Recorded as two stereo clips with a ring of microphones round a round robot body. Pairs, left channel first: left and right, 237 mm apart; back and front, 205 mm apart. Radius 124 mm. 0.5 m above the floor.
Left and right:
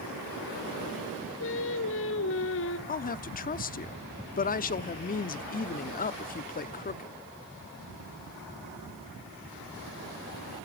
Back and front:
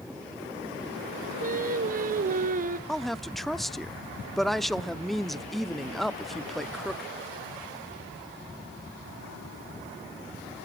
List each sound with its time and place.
1.4 s singing: 50° left, 1.4 m
2.9 s a woman speaking: 90° left, 0.7 m